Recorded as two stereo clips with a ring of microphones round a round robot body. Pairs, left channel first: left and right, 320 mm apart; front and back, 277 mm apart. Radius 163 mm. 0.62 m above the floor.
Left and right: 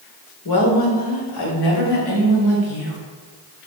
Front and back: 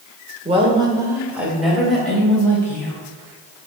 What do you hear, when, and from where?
0.5 s a woman speaking: 115° left, 2 m; by 2.9 s 80° left, 4 m